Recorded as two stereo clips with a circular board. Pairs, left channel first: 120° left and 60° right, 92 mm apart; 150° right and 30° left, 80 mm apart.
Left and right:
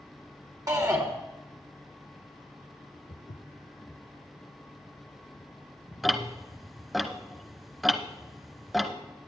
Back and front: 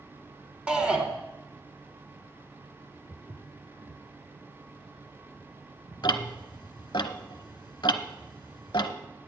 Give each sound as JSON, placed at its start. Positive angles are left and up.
{"t": 0.7, "sound": "a shout", "azimuth_deg": -40, "distance_m": 1.5}
{"t": 3.1, "sound": "footsteps", "azimuth_deg": 120, "distance_m": 1.2}
{"t": 6.0, "sound": "ticking", "azimuth_deg": -150, "distance_m": 0.7}